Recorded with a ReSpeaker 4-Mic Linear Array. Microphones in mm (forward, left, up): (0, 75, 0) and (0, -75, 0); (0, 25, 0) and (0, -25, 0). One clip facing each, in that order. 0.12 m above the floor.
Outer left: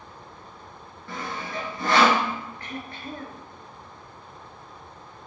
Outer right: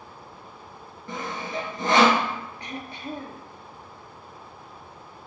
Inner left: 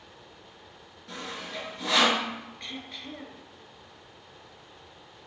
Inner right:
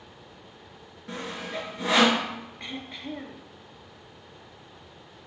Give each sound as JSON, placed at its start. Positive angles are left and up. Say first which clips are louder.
{"t": 1.1, "sound": "sawing", "louder": "outer right 2 dB, inner right 3 dB", "side_deg": -20, "distance_m": 1.0}
{"t": 2.6, "sound": "throat clearing", "louder": "outer right 1 dB, inner right 3 dB", "side_deg": -20, "distance_m": 0.6}